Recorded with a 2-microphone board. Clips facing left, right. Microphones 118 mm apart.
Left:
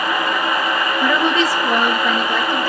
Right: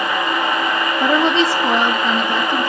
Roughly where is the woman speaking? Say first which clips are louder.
Right 2 dB; right.